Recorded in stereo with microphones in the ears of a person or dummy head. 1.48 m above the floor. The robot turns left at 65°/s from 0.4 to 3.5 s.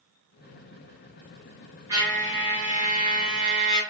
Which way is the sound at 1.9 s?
165° right.